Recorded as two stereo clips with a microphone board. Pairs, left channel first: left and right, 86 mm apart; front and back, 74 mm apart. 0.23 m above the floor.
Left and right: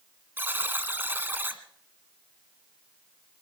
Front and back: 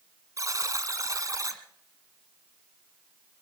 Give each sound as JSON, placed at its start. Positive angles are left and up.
{"t": 0.4, "sound": "a buzzer", "azimuth_deg": -150, "distance_m": 1.7}